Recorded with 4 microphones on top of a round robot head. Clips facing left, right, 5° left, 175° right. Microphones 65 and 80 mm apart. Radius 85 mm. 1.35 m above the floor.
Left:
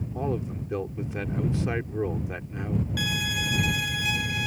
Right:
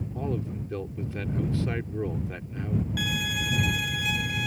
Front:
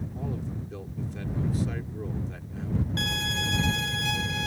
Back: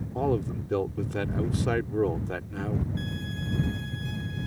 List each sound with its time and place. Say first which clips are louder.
0.1 s a man speaking: left 2 dB, back 11 dB; 165° left
3.0 s a violin: left 1 dB, front 4 dB; 5° left